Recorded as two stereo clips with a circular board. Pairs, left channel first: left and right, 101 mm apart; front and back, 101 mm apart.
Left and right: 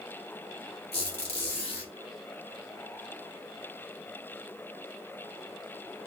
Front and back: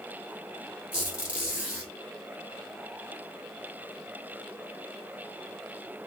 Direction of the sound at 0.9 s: 100° left.